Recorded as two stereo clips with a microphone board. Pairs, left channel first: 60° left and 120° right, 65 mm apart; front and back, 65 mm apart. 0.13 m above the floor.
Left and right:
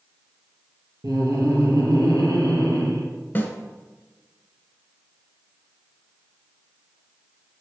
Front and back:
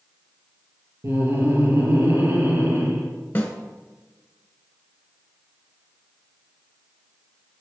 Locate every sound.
1.0 s laughter: 140° right, 2.5 m
3.4 s a snare drum: 30° left, 1.1 m